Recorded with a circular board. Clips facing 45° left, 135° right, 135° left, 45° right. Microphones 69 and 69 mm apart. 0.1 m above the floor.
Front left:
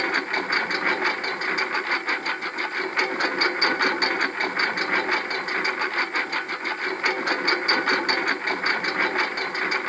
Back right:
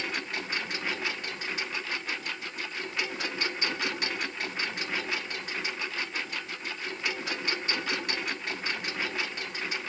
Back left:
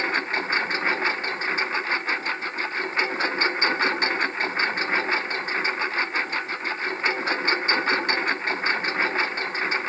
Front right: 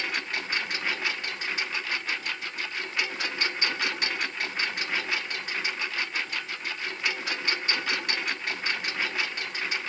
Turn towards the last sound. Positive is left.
turn(degrees=80)